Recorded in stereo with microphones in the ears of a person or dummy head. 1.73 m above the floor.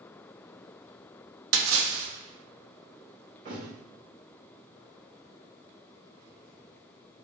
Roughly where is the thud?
Right.